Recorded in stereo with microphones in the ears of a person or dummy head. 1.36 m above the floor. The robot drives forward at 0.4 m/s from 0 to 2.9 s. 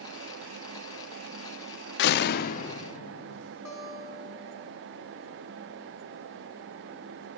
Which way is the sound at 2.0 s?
70° left (ahead or behind).